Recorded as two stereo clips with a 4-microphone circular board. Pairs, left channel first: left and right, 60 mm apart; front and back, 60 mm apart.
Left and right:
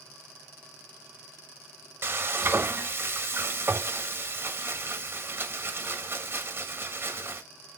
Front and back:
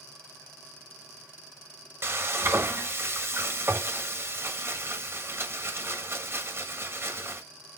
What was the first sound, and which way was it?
Frying, 135° right.